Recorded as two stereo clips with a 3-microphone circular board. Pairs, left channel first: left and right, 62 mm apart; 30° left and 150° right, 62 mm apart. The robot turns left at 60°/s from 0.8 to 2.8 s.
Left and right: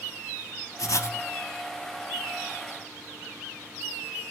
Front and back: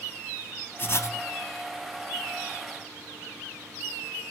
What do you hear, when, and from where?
0.8 s writing: 80° left, 0.8 m; by 1.2 s 55° left, 0.8 m